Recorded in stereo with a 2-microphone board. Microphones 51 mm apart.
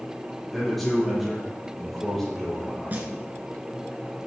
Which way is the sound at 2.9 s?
35° right (ahead or behind).